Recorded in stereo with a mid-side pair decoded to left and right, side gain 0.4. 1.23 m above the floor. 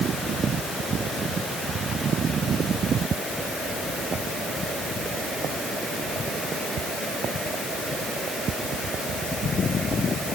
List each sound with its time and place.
Only background noise.